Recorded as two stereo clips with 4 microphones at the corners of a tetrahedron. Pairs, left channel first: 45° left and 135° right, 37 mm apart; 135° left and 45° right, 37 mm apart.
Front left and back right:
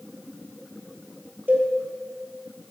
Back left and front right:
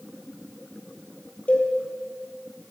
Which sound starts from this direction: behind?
A cowbell, at 1.5 s.